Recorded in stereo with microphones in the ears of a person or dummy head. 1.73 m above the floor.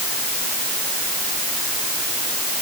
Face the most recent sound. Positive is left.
No sound to turn to.